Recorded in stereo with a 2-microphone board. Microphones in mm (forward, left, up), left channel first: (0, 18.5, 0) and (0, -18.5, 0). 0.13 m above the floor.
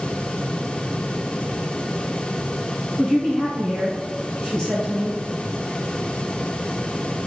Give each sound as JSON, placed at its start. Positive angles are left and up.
{"t": 3.0, "sound": "a man speaking", "side_deg": 20, "distance_m": 1.6}